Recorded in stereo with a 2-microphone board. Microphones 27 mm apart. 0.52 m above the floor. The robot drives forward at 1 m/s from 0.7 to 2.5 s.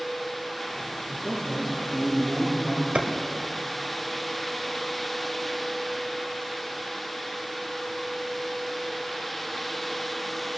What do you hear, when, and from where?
1.1 s a man speaking: 20° left (ahead or behind), 7.5 m
3.0 s a clap: 60° right (ahead or behind), 1.5 m